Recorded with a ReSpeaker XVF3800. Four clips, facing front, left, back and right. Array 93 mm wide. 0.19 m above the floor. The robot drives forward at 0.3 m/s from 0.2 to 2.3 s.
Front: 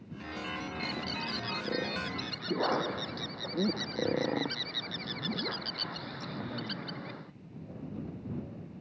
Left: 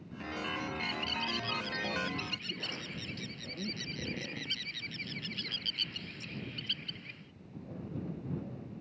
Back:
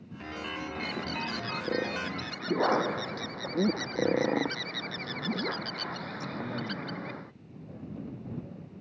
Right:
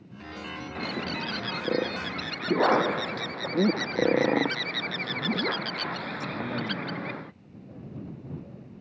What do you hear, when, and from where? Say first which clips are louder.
0.8 s a bird: right 5 dB, back 2 dB; 95° right; by 7.3 s 100° right